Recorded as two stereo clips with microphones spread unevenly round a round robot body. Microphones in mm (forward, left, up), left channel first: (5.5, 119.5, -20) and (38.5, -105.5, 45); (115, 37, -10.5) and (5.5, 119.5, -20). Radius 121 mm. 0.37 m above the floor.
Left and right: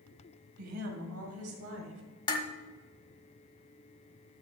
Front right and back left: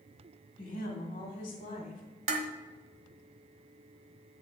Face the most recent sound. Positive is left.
turn(degrees=160)